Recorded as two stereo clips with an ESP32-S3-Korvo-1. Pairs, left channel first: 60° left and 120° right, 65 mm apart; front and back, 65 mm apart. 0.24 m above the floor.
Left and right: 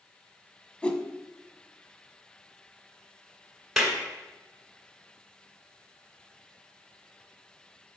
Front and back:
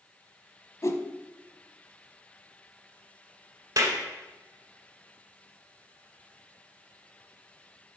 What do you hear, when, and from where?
0.8 s a whoosh: 10° right, 0.7 m
3.8 s a clap: 155° left, 1.7 m